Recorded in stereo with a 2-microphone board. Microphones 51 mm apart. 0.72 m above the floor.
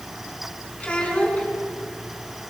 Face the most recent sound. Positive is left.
turn(degrees=25)  # may be behind; listen again after turning